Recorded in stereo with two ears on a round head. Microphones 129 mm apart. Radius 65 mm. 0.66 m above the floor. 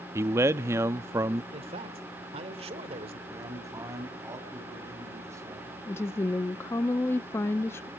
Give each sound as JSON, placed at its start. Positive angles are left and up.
{"t": 0.1, "sound": "a man speaking", "side_deg": -15, "distance_m": 0.6}
{"t": 1.5, "sound": "a man speaking", "side_deg": -40, "distance_m": 2.0}
{"t": 3.3, "sound": "a man speaking", "side_deg": -20, "distance_m": 5.0}
{"t": 5.9, "sound": "a woman speaking", "side_deg": 15, "distance_m": 0.5}